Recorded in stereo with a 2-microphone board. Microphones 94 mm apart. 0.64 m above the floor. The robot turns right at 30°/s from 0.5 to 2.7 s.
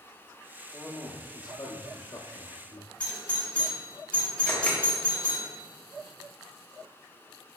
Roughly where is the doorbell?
Centre.